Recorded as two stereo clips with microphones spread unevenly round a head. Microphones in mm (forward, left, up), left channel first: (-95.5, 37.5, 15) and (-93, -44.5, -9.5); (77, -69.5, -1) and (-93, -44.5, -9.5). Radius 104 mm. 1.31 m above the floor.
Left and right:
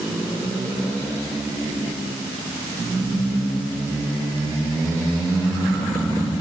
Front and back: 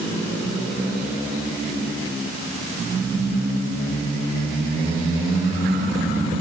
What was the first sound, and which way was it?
Only background noise.